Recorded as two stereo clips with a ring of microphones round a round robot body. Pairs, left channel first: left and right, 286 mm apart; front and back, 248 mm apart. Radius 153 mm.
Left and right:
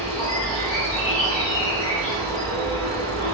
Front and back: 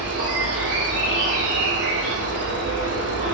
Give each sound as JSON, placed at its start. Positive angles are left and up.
{"t": 0.0, "sound": "an insect", "azimuth_deg": 135, "distance_m": 1.2}